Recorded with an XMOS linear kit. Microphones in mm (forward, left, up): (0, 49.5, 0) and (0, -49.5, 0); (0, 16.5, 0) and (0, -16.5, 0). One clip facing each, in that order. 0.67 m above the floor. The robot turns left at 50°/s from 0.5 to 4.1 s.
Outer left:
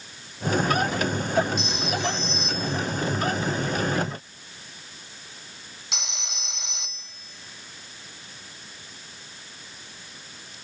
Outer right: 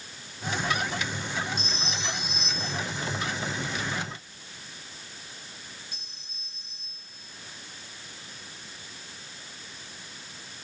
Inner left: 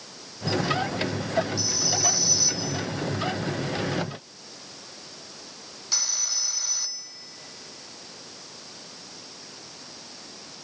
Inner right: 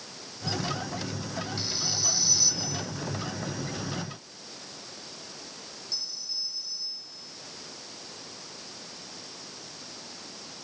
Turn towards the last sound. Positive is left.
turn(degrees=85)